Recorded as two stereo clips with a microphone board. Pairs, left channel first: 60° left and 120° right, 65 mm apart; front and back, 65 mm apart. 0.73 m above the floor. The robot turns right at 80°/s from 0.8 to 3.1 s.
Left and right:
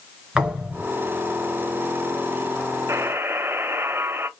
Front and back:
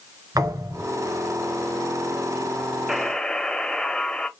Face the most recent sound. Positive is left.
turn(degrees=-75)